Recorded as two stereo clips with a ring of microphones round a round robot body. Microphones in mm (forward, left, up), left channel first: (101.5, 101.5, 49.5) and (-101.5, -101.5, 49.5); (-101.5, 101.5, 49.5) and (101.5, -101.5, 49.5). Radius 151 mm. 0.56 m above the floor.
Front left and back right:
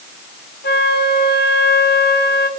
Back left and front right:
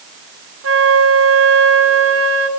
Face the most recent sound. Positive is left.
turn(degrees=-10)